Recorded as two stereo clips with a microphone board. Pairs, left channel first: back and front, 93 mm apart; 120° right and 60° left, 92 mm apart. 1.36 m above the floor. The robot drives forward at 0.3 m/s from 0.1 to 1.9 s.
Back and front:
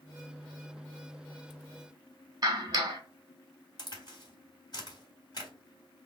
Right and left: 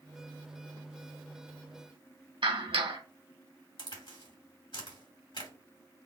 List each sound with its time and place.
2.4 s a clap: 45° left, 1.6 m
3.8 s a crack: 145° right, 2.5 m